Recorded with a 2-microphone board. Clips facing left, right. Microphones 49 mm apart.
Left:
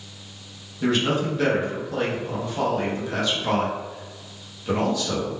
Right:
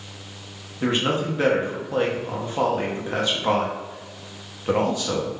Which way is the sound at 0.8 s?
30° right (ahead or behind).